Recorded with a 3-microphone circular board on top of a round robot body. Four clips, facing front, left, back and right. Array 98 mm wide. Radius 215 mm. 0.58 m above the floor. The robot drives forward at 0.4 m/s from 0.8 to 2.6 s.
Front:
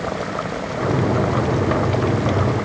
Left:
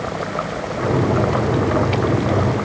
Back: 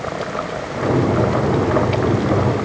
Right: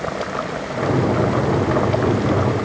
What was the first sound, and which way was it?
Only background noise.